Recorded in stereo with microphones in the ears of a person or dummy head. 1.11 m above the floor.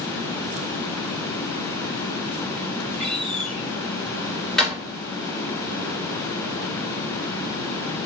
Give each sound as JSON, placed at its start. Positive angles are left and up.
{"t": 3.0, "sound": "a door slam", "side_deg": 5, "distance_m": 3.5}